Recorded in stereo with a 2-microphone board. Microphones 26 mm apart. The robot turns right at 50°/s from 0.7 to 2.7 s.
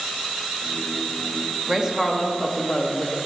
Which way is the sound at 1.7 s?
20° right.